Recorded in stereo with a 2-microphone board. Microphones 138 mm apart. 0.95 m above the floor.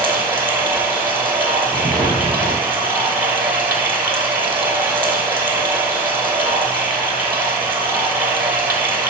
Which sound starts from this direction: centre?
Running water, at 0.0 s.